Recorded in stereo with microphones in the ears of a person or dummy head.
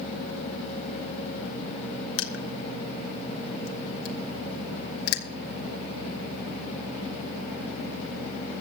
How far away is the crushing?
About 1.2 m.